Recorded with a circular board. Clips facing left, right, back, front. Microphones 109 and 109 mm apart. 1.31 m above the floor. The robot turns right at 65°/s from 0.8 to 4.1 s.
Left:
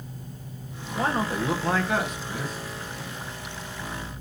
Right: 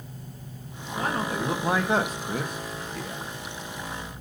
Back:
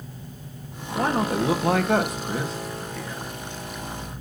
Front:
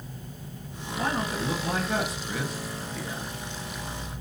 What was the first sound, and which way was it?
A man speaking, 140° left.